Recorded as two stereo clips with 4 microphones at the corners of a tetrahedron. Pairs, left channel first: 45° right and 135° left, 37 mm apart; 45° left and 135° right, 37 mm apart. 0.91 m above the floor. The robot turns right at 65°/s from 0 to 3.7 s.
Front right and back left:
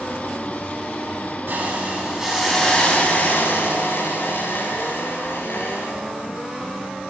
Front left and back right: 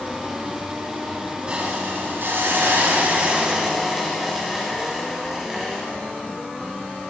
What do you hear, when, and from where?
1.5 s a hiss: 160° left, 9.5 m; by 5.9 s 55° right, 9.5 m